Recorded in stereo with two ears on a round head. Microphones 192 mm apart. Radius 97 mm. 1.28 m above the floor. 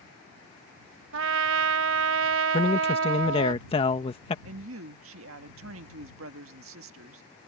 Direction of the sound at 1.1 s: 65° right (ahead or behind).